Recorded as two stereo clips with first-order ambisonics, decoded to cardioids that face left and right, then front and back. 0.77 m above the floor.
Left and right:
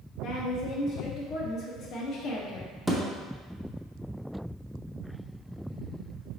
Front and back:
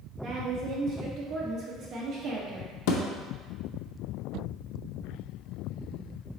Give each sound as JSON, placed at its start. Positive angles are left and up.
{"t": 0.2, "sound": "a woman speaking", "azimuth_deg": 130, "distance_m": 0.9}
{"t": 2.9, "sound": "a thud", "azimuth_deg": 0, "distance_m": 0.5}